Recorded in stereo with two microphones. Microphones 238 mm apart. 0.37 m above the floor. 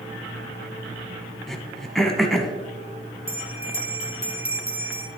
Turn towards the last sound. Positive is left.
turn(degrees=-10)  # may be behind; listen again after turning